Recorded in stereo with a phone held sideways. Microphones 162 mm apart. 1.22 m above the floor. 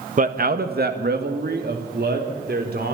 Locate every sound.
0.2 s a man speaking: 55° right (ahead or behind), 1.4 m; by 2.9 s 80° right, 4.5 m